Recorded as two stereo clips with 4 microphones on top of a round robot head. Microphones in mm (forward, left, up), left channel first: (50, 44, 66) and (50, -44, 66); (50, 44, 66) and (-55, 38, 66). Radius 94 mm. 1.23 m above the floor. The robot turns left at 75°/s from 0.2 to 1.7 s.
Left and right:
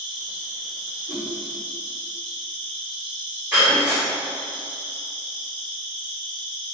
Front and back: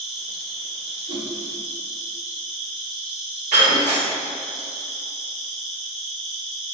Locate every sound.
0.0 s an insect: 90° right, 1.8 m; by 6.7 s 155° left, 1.8 m
1.1 s a whoosh: 150° right, 0.7 m; by 1.3 s 165° right, 0.7 m
3.5 s breaking glass: 175° right, 2.0 m